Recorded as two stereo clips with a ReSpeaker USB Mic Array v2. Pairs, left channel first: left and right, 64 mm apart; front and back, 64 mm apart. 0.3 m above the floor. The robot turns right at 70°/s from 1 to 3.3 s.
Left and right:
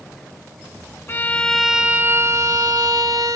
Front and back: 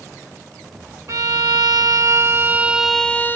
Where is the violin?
145° left, 0.5 m; by 3.4 s 60° right, 0.5 m.